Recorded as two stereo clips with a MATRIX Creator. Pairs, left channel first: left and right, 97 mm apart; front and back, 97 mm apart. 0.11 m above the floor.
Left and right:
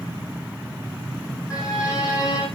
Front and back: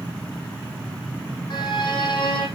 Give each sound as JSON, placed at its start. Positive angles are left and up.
{"t": 1.5, "sound": "a violin", "azimuth_deg": 40, "distance_m": 4.0}